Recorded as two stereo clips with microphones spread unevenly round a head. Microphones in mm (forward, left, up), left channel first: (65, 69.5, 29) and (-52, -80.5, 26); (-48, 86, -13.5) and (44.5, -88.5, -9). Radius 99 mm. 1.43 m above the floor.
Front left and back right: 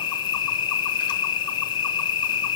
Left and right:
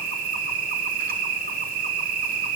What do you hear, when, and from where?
0.0 s an insect: 15° right, 1.1 m